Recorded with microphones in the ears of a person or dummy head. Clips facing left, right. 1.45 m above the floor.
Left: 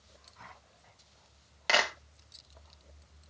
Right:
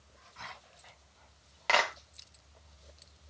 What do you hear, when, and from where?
1.7 s a clap: 5° left (ahead or behind), 1.2 m